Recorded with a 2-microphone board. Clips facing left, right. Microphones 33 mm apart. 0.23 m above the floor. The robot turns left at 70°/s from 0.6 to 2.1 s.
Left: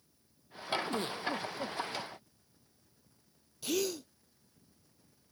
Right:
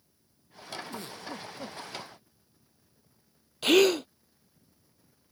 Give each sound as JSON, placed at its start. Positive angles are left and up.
{"t": 0.9, "sound": "a giggle", "azimuth_deg": 50}
{"t": 3.6, "sound": "a gasp", "side_deg": -65}